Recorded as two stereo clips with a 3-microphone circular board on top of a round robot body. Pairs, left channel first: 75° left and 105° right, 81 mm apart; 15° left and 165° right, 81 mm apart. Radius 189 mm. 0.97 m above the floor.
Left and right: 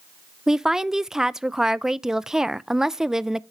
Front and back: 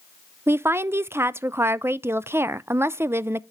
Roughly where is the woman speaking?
Behind.